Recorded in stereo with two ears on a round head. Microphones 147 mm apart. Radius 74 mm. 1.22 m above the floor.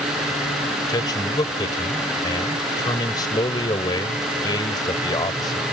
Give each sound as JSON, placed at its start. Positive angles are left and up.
{"t": 0.9, "sound": "a man speaking", "side_deg": 25}